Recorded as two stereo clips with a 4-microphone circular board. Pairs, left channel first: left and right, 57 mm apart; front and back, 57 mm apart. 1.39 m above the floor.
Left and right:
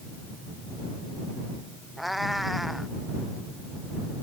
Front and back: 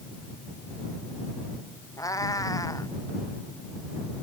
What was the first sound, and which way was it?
A cat meowing, straight ahead.